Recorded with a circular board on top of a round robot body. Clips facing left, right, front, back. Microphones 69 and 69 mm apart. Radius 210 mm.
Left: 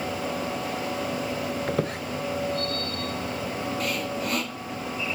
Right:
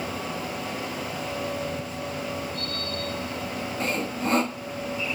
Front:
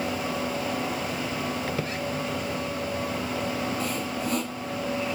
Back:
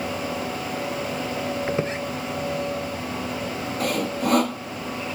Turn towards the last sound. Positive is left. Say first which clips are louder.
# right 1 dB, back 5 dB
turn(degrees=-150)